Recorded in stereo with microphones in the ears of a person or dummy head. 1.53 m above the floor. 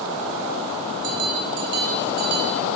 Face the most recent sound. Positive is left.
turn(degrees=-60)  # may be behind; listen again after turning